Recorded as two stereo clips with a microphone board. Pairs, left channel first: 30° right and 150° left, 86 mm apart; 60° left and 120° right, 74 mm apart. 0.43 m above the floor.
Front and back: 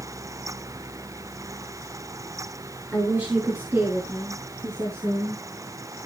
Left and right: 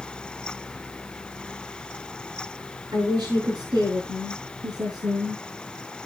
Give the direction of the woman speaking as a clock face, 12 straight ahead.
5 o'clock.